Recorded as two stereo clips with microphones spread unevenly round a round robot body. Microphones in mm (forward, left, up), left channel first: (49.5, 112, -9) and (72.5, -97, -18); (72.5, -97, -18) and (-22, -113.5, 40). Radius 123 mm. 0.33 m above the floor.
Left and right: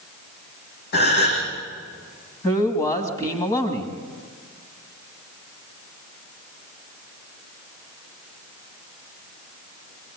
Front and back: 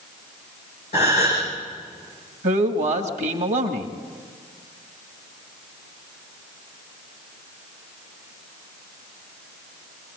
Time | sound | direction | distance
0.9 | a gasp | 60° left | 7.5 m
2.4 | a man speaking | 170° left | 2 m